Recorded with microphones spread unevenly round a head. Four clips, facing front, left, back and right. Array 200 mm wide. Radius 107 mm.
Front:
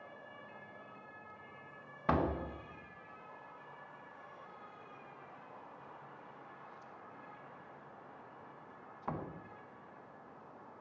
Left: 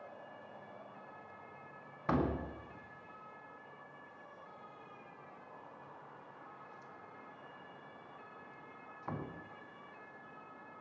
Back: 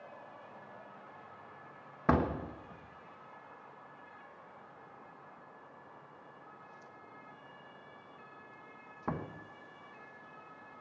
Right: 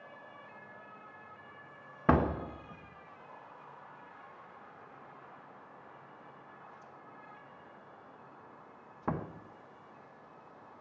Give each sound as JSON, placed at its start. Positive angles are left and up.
{"t": 2.1, "sound": "a door slam", "azimuth_deg": -125, "distance_m": 1.1}